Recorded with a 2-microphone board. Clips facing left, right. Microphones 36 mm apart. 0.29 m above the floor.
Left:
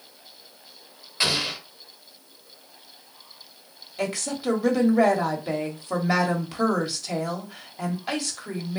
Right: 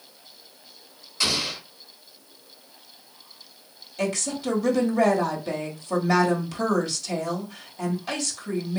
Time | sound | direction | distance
1.2 | an explosion | 25° left (ahead or behind) | 0.8 m
4.0 | a woman speaking | 15° left (ahead or behind) | 1.0 m